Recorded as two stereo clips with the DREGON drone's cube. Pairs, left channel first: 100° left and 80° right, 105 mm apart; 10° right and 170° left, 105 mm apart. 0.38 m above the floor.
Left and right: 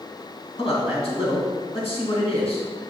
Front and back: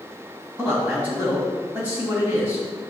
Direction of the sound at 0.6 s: 95° left.